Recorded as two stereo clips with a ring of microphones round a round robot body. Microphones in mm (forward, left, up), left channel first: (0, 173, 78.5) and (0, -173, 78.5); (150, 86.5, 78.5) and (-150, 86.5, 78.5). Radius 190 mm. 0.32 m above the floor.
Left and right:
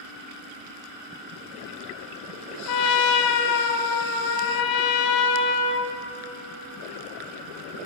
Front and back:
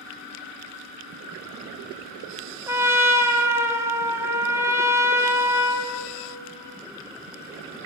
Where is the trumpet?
100° left, 1.5 m.